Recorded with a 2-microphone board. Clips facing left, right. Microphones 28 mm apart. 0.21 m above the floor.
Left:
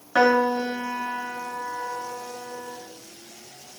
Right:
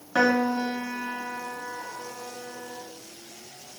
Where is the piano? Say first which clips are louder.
Left 3 dB; 15° left (ahead or behind), 5.5 m.